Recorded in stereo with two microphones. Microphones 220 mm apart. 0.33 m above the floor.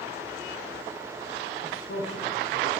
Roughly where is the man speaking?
Left.